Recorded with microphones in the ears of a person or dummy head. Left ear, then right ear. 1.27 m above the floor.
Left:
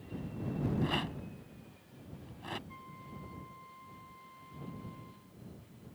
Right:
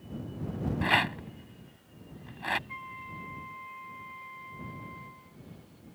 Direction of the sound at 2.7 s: 75° right (ahead or behind).